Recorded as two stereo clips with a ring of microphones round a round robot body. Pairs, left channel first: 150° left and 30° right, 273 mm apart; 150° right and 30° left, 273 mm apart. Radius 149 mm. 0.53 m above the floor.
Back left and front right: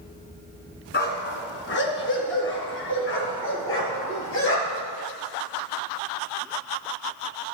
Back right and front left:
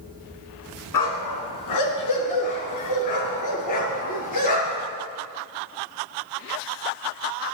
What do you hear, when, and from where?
0.9 s a dog barking: 155° right, 2 m; by 4.9 s 170° right, 4.5 m